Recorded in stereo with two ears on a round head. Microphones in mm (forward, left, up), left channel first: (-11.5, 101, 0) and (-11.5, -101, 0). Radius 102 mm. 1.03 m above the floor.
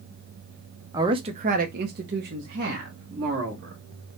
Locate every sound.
0.9 s a man speaking: 15° right (ahead or behind), 0.7 m; by 3.8 s 45° right (ahead or behind), 1.9 m